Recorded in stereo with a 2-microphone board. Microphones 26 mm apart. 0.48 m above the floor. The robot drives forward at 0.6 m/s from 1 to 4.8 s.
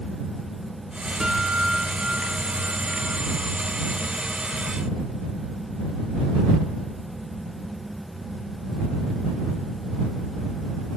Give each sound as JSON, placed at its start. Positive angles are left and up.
{"t": 1.2, "sound": "a guitar", "side_deg": -25, "distance_m": 4.0}